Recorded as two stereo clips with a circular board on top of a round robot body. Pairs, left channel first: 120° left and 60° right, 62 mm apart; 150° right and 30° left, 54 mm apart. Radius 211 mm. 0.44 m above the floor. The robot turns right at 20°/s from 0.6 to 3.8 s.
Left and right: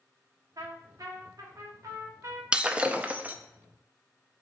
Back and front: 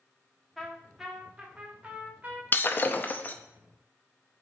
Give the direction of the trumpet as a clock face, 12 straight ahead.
2 o'clock.